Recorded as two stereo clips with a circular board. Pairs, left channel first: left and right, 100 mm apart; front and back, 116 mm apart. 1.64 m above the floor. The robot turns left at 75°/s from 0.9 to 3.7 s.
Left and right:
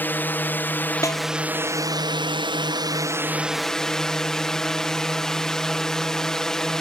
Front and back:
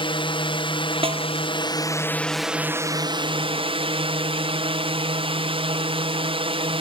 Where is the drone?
25° left; by 6.8 s 175° left.